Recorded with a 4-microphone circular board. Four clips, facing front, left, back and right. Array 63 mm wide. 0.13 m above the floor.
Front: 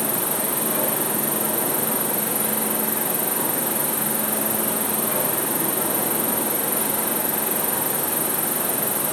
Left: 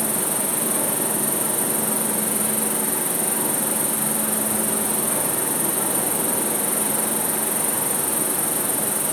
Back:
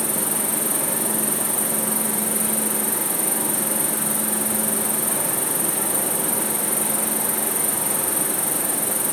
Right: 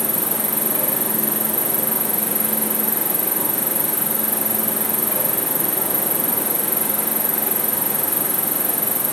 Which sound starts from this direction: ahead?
An insect, at 0.0 s.